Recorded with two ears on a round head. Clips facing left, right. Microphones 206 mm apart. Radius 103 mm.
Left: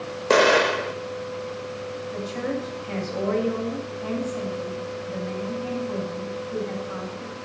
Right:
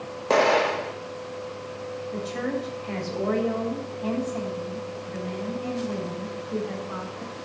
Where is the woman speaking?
50° right (ahead or behind), 7.5 m.